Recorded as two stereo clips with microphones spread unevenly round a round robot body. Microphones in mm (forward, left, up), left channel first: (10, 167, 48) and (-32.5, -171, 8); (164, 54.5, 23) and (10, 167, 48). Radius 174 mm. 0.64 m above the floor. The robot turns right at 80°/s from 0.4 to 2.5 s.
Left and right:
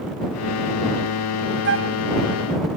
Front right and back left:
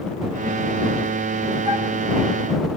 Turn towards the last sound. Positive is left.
turn(degrees=-75)